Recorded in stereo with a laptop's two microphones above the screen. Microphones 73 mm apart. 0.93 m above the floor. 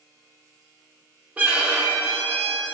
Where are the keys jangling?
I don't hear keys jangling.